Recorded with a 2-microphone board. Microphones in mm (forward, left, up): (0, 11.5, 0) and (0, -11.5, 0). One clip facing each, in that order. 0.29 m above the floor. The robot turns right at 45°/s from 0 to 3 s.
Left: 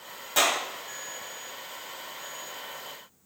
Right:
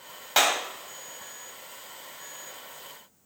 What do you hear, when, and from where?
0.4 s a clap: 45° right (ahead or behind), 1.5 m